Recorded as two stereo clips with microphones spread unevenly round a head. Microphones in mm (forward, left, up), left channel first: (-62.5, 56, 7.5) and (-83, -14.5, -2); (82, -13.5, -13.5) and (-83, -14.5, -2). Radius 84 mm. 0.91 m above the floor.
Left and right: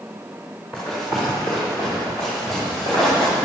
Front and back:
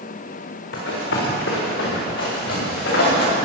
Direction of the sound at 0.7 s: 20° right.